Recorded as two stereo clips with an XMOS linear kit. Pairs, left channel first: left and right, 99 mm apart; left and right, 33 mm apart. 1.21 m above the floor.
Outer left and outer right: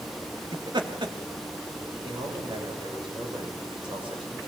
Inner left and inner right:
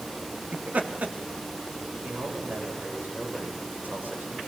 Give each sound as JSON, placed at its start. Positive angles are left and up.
{"t": 0.5, "sound": "laughter", "side_deg": -50, "distance_m": 2.0}
{"t": 2.0, "sound": "a man speaking", "side_deg": -55, "distance_m": 6.0}